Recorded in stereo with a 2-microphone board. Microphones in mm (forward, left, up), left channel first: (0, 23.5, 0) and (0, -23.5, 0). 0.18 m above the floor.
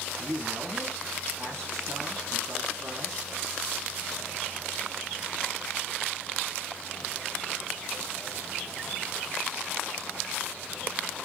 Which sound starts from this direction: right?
A man speaking, at 0.2 s.